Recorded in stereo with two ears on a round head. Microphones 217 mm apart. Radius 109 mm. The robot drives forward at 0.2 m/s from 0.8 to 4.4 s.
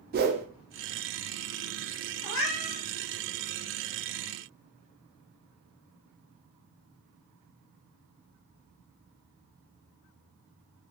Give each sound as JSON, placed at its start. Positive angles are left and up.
{"t": 0.1, "sound": "a whoosh", "side_deg": -40, "distance_m": 0.5}
{"t": 2.2, "sound": "a cat meowing", "side_deg": 60, "distance_m": 1.2}